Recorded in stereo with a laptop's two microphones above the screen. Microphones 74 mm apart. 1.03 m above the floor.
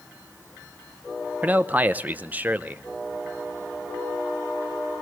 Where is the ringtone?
No ringtone in this recording.